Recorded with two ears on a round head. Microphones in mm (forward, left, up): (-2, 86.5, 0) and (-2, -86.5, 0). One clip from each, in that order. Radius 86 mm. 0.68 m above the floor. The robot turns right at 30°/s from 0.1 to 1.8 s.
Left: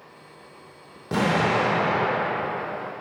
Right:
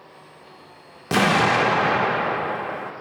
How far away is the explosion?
About 0.5 m.